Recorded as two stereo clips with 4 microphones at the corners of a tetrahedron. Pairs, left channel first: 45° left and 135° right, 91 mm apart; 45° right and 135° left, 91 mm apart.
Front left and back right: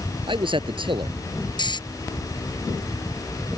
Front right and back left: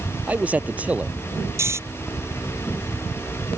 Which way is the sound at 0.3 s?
150° right.